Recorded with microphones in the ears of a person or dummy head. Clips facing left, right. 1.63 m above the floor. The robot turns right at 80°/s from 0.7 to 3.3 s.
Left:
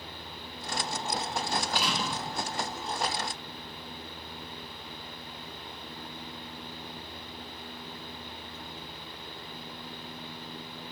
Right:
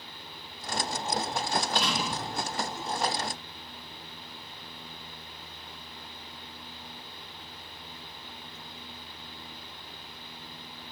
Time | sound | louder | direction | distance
1.5 | a door slam | right 2 dB | 140° left | 1.6 m